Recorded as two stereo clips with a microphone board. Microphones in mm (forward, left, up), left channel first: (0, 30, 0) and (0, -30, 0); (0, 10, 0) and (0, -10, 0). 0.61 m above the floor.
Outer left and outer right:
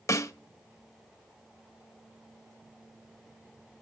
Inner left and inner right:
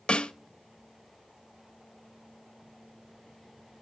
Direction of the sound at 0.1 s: 55° left (ahead or behind).